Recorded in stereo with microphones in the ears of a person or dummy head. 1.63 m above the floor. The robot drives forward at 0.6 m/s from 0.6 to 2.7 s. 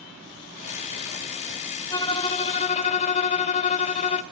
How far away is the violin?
About 0.9 m.